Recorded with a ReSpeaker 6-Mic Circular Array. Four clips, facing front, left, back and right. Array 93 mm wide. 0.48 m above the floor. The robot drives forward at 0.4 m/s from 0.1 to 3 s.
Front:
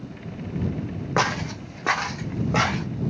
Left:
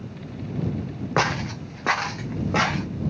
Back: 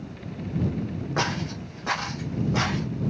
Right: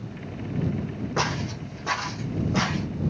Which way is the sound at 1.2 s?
55° left.